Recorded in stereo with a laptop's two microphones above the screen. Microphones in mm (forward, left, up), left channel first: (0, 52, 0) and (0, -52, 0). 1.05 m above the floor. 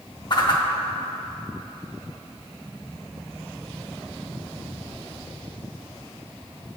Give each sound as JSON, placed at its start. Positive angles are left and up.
{"t": 0.3, "sound": "a whoosh", "side_deg": 45, "distance_m": 0.6}